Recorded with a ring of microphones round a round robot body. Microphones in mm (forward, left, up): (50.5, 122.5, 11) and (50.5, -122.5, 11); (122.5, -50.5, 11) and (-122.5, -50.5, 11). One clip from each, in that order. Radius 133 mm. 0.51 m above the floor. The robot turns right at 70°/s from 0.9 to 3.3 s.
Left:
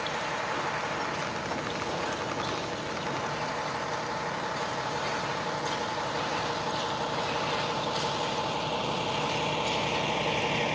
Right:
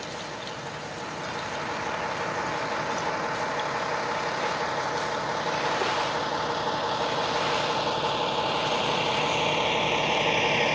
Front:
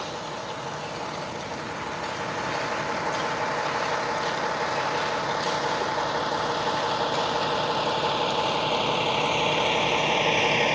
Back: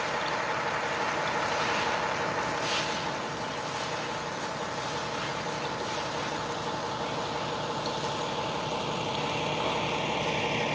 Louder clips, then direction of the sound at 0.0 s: Left 4 dB, back 3 dB; 155° left.